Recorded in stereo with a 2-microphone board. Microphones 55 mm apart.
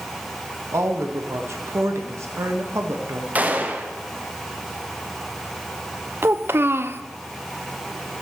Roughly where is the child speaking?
Right.